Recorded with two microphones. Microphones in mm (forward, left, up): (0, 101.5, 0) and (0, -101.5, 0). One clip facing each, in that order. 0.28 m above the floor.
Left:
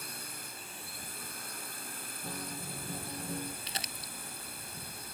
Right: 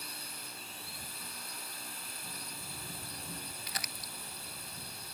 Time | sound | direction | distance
0.0 | a drone | 50° left (ahead or behind) | ?
2.2 | a guitar | 75° left (ahead or behind) | ?
3.7 | crumpling | 25° left (ahead or behind) | ?